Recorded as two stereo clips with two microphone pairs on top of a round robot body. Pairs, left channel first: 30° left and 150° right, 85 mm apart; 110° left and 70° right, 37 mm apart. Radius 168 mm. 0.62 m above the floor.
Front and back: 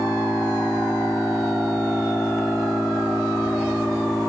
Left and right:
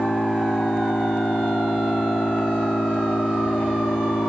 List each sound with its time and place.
0.0 s an engine running: 120° left